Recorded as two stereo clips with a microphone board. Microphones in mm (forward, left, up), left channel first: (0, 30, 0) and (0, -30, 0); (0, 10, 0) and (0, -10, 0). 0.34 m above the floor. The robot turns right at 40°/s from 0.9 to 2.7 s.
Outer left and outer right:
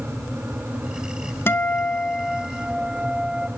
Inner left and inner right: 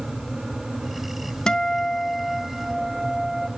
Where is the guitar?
140° left, 0.7 m; by 3.5 s 170° right, 0.7 m.